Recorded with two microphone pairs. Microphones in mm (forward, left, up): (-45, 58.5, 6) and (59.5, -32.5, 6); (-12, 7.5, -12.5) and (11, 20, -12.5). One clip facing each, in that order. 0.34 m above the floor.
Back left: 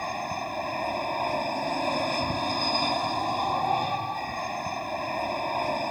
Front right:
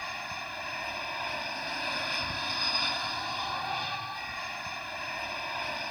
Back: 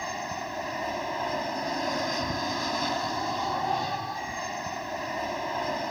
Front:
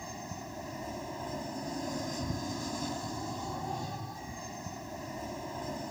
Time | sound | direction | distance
0.0 | an aircraft | 175° left | ?